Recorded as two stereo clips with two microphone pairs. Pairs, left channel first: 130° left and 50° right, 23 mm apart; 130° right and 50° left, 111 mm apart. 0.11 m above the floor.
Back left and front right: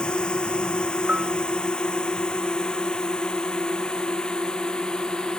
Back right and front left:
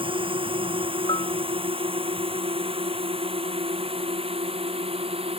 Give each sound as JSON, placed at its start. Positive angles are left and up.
{"t": 0.0, "sound": "a drone", "azimuth_deg": 85}
{"t": 1.1, "sound": "a bell", "azimuth_deg": -85}